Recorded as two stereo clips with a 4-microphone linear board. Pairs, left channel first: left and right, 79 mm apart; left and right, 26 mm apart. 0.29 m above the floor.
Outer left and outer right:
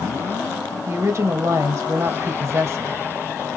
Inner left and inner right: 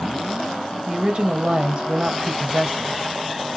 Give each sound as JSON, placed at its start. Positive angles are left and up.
{"t": 0.9, "sound": "a woman speaking", "side_deg": -35, "distance_m": 1.3}